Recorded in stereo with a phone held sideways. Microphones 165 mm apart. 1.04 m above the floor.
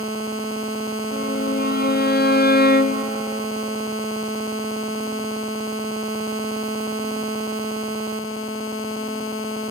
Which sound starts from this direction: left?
A violin, at 1.1 s.